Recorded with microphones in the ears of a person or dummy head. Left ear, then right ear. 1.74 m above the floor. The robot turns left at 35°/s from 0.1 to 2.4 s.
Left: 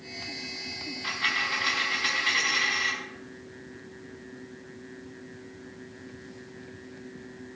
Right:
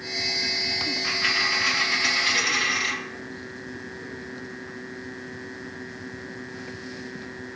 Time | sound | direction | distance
1.0 | a dropped coin | 30° left | 3.5 m